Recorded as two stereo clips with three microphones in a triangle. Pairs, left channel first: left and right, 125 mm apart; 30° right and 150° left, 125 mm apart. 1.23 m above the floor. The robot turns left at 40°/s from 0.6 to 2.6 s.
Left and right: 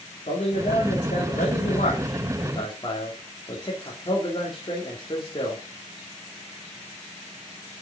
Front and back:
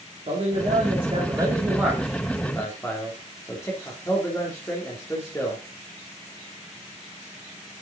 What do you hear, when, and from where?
0.3 s a man speaking: 120° left, 3 m; by 5.6 s 40° left, 3 m